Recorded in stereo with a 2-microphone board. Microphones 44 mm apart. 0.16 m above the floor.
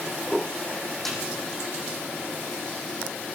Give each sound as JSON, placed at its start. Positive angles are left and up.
{"t": 1.1, "sound": "a snare drum", "side_deg": 5, "distance_m": 5.5}